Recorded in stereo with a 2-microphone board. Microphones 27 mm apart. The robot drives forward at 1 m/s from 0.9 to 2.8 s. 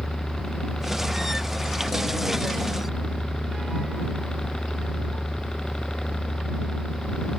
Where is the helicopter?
25° left (ahead or behind); by 7.4 s 30° left (ahead or behind).